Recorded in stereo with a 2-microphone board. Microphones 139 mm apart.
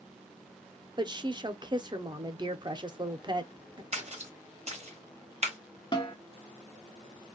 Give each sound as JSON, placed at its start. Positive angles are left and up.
{"t": 1.0, "sound": "a woman speaking", "side_deg": -35, "distance_m": 0.6}
{"t": 3.9, "sound": "a splash", "side_deg": -50, "distance_m": 0.9}
{"t": 5.9, "sound": "a snare drum", "side_deg": 35, "distance_m": 1.1}